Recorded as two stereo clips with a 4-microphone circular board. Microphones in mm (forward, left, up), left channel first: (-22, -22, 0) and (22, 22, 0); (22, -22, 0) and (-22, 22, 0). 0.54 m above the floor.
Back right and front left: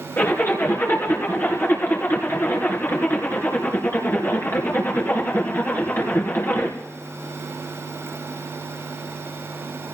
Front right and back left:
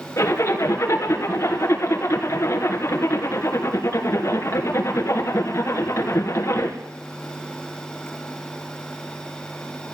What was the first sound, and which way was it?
A zipper, 85° right.